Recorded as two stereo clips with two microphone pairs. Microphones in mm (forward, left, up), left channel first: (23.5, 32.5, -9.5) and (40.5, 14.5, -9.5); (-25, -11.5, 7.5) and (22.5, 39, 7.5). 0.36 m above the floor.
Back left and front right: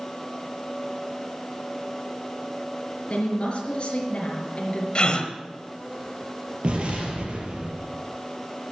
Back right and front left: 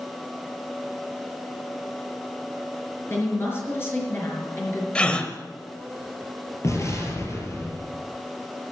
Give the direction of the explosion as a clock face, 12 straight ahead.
3 o'clock.